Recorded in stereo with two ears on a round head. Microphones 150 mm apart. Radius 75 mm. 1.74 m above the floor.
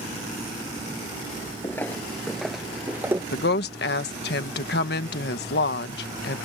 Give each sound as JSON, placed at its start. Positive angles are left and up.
{"t": 1.6, "sound": "footsteps", "side_deg": 15}
{"t": 3.3, "sound": "a woman speaking", "side_deg": 65}